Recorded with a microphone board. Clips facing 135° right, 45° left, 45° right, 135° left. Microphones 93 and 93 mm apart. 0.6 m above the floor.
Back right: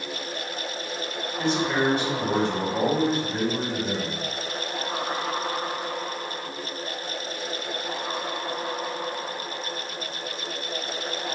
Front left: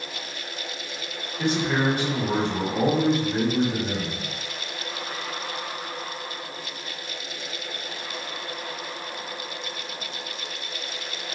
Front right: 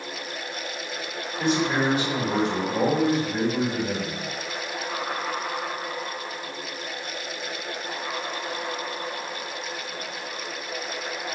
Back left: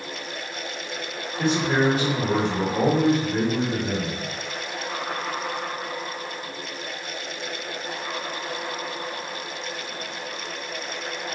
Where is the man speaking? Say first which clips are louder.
Even, back left 2 dB; 115° left, 1.8 m.